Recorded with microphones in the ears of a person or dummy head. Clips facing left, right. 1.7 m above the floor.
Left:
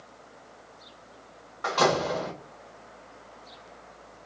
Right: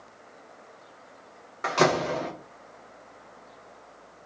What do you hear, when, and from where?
1.6 s a door slam: 30° right (ahead or behind), 1.1 m